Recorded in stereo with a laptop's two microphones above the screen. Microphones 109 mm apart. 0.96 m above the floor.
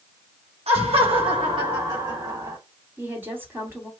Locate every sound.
0.7 s laughter: 65° right (ahead or behind), 1.5 m; by 2.6 s 35° right (ahead or behind), 2 m
3.0 s a woman speaking: 20° right (ahead or behind), 2.5 m